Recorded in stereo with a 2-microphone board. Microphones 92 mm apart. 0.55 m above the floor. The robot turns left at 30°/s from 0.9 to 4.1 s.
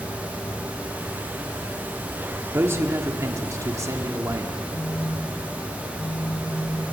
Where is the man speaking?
50° right, 1.5 m; by 4.6 s 100° right, 1.5 m.